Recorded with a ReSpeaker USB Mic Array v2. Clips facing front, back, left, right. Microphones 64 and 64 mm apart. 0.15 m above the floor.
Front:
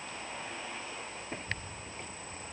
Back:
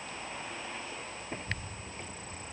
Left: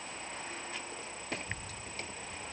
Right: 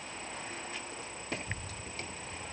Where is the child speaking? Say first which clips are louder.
Even, right 1 dB; 140° right, 2 m.